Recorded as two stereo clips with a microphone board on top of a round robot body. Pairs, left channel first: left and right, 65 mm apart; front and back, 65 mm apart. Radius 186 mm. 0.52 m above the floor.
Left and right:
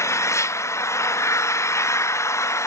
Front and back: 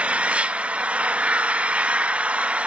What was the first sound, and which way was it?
An engine running, 115° left.